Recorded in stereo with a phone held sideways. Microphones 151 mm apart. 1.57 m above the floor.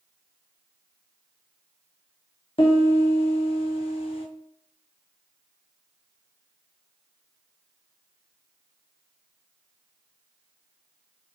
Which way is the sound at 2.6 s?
40° left (ahead or behind).